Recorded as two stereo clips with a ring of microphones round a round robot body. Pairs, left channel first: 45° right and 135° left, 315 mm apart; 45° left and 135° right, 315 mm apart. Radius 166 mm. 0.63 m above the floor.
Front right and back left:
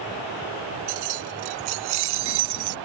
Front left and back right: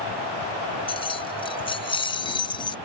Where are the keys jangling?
120° left.